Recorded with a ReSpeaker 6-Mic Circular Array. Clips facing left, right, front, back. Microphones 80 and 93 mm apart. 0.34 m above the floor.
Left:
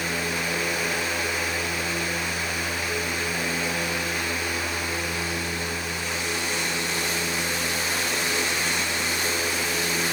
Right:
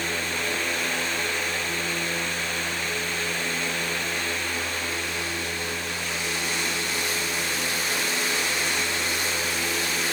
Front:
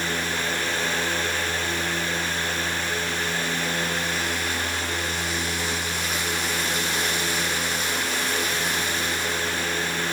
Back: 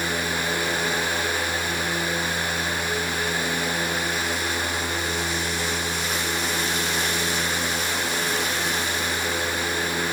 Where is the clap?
I don't hear a clap.